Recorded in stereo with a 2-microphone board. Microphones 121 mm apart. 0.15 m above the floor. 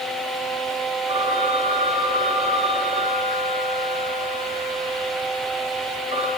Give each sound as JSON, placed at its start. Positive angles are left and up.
{"t": 1.1, "sound": "a phone ringing", "side_deg": -60, "distance_m": 5.0}